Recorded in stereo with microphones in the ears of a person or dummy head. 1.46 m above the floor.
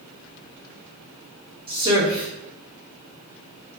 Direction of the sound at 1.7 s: 25° right (ahead or behind).